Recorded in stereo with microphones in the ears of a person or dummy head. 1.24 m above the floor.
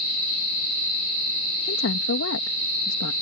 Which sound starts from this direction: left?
A woman speaking, at 1.7 s.